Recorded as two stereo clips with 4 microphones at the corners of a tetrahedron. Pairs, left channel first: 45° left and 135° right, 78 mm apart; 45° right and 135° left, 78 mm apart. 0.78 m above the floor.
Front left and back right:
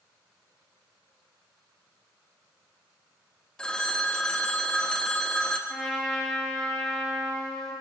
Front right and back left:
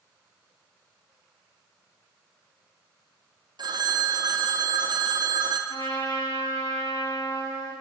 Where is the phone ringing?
125° left, 0.6 m.